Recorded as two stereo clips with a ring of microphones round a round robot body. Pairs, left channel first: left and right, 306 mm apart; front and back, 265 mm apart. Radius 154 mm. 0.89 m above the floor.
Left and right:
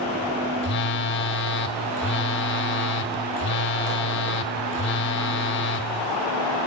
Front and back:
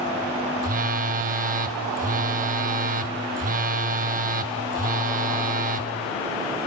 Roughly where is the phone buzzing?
Behind left.